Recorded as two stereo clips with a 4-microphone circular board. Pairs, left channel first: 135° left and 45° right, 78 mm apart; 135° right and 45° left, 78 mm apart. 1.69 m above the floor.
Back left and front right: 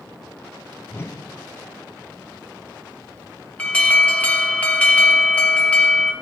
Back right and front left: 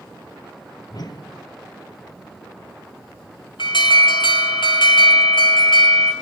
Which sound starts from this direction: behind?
A whoosh, at 0.9 s.